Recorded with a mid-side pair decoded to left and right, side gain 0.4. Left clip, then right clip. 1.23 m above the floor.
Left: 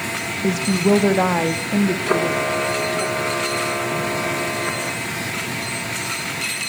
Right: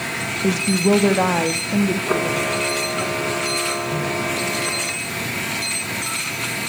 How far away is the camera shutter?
About 2 m.